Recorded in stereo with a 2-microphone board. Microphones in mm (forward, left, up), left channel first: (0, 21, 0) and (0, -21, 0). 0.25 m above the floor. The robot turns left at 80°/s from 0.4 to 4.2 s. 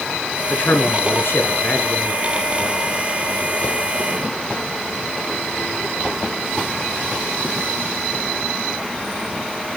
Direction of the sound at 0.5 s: 140° left.